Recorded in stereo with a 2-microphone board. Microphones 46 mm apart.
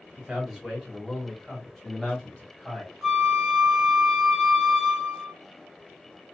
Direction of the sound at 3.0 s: 10° right (ahead or behind).